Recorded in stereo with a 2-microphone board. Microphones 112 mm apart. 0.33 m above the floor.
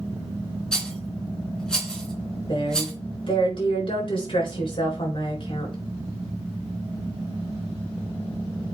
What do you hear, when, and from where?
0.7 s a rattle: 5° left (ahead or behind), 3 m
2.5 s a woman speaking: 50° left (ahead or behind), 4 m